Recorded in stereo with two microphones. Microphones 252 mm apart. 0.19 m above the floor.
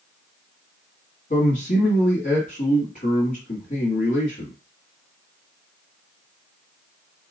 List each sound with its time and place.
1.3 s a man speaking: 35° left (ahead or behind), 1.6 m